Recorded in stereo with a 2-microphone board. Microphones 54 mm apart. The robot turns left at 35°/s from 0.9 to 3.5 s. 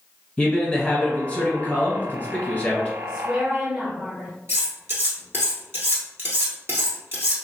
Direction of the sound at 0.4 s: 20° left (ahead or behind).